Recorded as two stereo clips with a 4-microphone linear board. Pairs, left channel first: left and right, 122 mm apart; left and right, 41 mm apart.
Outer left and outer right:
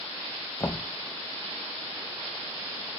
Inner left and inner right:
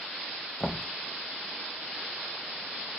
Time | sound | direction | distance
0.6 | knocking | 25° left (ahead or behind) | 0.7 m